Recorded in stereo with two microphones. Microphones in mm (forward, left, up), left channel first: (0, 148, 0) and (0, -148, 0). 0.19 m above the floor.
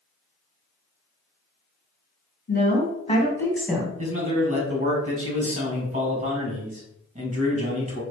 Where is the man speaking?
25° right (ahead or behind), 1.8 m.